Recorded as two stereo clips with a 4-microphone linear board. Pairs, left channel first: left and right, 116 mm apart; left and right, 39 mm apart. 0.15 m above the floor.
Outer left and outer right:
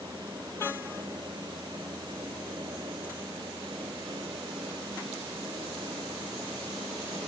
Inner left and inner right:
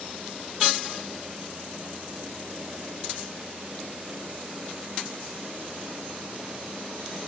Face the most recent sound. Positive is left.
No sound to turn to.